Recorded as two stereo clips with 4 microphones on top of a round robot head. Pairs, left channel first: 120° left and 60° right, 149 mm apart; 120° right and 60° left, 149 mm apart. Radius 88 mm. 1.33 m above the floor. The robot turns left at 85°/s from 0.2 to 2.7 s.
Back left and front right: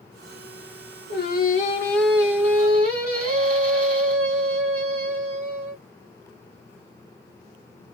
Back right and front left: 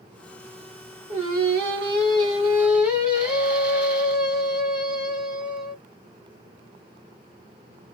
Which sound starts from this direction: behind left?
Singing, at 1.1 s.